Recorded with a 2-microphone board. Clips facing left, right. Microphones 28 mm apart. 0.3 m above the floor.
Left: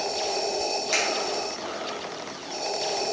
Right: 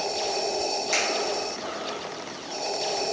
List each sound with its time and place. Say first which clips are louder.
0.9 s a finger snap: left 1 dB; 15° left (ahead or behind), 1.3 m